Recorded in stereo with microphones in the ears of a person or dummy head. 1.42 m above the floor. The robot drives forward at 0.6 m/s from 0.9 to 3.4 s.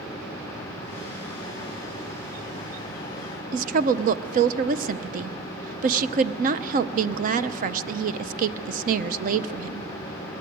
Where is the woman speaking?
45° right (ahead or behind), 0.8 m.